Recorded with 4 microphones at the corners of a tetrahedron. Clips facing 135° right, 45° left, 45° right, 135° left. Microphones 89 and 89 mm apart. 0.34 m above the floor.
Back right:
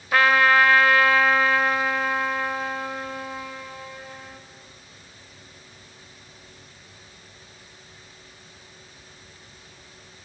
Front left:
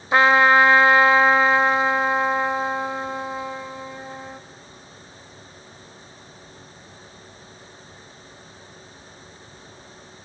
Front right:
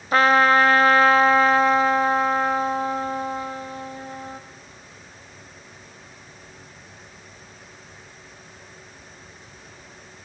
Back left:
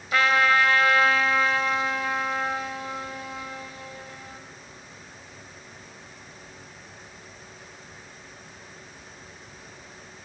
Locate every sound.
0.1 s a trumpet: 15° right, 0.6 m